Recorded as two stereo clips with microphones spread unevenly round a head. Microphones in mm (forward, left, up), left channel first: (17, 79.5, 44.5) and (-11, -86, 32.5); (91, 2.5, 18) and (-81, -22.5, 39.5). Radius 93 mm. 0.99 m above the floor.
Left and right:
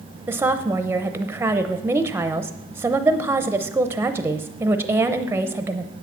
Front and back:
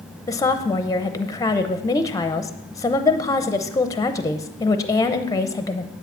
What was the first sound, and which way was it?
A woman speaking, 35° right.